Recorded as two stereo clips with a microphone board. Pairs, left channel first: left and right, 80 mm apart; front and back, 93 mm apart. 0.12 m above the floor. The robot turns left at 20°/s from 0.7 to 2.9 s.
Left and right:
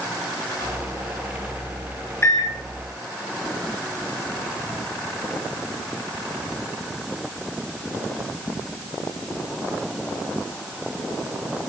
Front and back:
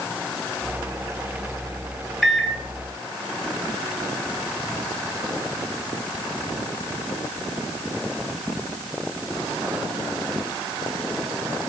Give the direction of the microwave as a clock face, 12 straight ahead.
9 o'clock.